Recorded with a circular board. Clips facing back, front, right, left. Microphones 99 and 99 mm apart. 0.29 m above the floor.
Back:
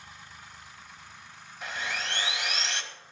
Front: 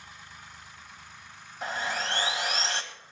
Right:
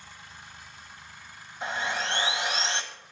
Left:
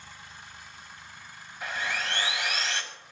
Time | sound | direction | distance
1.6 | sawing | 35° right | 1.4 m